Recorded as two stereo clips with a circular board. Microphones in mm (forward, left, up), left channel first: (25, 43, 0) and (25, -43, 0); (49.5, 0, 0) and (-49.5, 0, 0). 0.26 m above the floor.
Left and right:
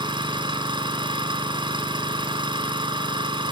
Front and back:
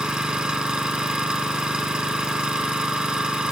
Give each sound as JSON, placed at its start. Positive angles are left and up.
{"t": 0.0, "sound": "an engine running", "azimuth_deg": -100, "distance_m": 1.7}